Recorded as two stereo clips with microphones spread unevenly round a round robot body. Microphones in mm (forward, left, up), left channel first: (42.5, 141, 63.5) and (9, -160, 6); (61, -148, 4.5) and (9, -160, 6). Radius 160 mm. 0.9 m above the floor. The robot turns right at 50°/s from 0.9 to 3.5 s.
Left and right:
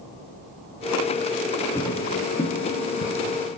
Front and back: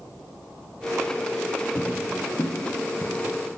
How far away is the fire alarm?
No fire alarm in this recording.